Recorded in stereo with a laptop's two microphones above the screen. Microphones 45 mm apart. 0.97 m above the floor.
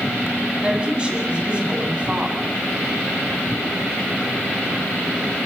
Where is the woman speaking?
25° right (ahead or behind), 8.5 m.